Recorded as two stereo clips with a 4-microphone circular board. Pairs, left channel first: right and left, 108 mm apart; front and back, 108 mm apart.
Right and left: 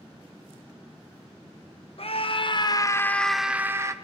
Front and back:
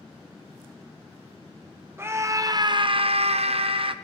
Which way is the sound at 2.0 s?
115° right.